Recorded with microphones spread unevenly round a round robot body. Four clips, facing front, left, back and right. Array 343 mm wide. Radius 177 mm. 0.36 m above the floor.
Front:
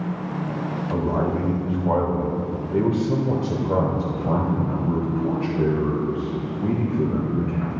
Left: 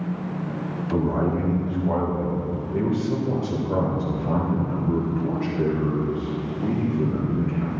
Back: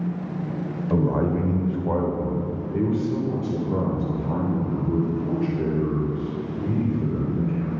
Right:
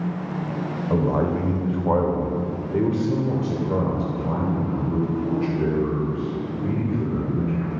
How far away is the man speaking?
About 1.5 m.